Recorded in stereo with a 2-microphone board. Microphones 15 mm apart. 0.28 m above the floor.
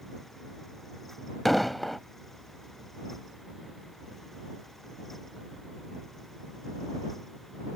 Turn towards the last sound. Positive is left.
turn(degrees=10)  # may be behind; listen again after turning